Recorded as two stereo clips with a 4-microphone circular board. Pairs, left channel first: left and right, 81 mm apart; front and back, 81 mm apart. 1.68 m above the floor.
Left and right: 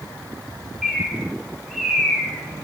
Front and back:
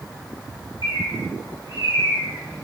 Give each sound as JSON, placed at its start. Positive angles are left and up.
{"t": 0.8, "sound": "a bird", "azimuth_deg": 0, "distance_m": 0.9}